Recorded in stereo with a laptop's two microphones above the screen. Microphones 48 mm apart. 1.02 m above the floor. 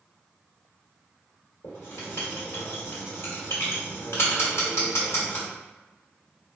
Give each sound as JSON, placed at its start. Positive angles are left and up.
{"t": 1.6, "sound": "writing", "side_deg": 65, "distance_m": 1.1}